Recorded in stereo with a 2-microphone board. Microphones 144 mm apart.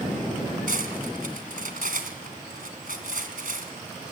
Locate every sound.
0.7 s cutlery clinking: 65° right (ahead or behind), 2.5 m